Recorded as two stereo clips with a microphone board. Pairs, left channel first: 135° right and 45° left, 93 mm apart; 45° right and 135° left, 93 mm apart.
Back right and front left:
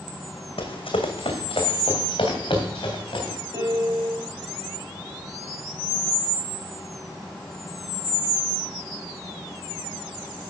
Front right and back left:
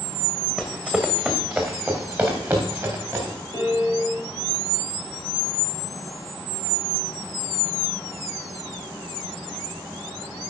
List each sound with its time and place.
0.6 s running footsteps: 140° right, 1.6 m; by 3.4 s 165° right, 4.5 m
3.5 s a piano: straight ahead, 4 m